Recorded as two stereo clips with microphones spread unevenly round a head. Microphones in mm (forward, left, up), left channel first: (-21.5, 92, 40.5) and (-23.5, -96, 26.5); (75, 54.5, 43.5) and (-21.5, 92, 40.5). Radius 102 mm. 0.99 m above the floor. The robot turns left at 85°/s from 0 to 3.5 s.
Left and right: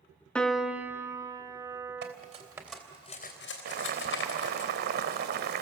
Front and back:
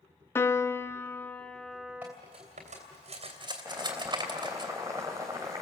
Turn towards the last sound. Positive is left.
turn(degrees=-125)